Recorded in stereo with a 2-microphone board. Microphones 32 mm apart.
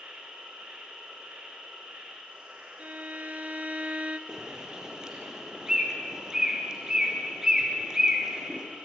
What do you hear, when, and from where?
0.0 s an insect: 60° right (ahead or behind), 8.5 m
2.8 s a violin: 50° right (ahead or behind), 0.9 m
4.3 s a bird: 20° right (ahead or behind), 3 m